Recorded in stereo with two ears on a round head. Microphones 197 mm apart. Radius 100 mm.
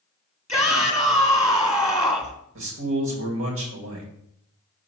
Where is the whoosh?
No whoosh in this recording.